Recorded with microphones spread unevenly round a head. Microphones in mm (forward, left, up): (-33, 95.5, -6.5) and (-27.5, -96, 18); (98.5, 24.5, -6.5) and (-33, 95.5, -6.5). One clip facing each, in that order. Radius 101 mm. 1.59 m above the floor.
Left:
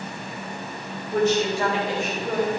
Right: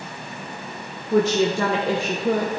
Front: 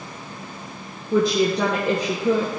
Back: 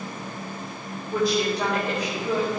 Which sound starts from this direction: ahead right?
A woman speaking, at 1.1 s.